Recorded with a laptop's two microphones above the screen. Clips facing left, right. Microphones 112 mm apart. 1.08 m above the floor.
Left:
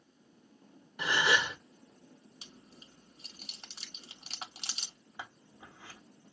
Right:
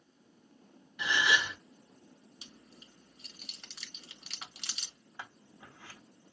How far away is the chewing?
About 1.2 m.